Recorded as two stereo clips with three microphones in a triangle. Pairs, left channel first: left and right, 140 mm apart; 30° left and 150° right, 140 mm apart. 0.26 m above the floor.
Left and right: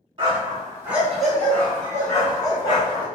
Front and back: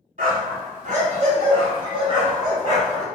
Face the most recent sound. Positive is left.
turn(degrees=145)